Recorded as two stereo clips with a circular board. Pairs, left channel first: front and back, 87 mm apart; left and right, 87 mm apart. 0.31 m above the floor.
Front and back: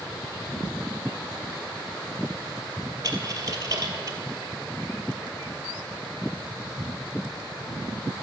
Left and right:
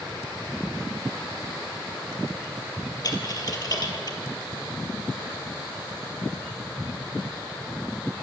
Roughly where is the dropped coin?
Behind left.